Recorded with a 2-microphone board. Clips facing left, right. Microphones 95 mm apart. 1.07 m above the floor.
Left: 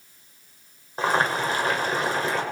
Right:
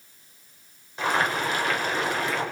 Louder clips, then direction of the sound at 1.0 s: Left 2 dB; 35° left (ahead or behind).